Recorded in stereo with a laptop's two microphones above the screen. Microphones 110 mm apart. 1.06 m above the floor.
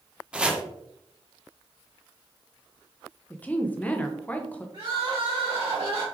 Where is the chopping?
10° right (ahead or behind), 0.6 m.